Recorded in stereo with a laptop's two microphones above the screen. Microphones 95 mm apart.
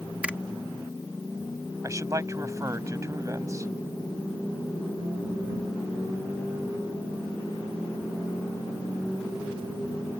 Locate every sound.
0.2 s a finger snap: 15° right (ahead or behind)
1.8 s a man speaking: 30° right (ahead or behind)